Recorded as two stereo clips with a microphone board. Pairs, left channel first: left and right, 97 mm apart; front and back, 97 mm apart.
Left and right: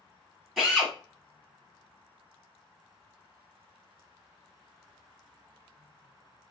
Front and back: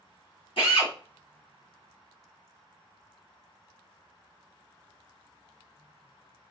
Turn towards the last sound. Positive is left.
turn(degrees=5)